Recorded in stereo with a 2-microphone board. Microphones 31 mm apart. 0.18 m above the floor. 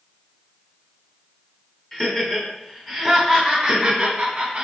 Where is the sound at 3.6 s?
25° right (ahead or behind), 1.1 m.